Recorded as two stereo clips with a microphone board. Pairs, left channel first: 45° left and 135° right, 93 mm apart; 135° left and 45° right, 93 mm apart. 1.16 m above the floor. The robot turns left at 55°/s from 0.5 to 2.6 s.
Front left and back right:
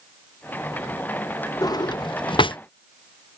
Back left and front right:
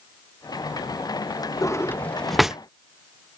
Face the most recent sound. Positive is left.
turn(degrees=35)